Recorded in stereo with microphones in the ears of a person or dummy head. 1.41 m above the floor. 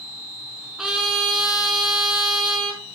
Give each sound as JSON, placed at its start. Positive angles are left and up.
{"t": 0.8, "sound": "a trumpet", "side_deg": -5, "distance_m": 4.5}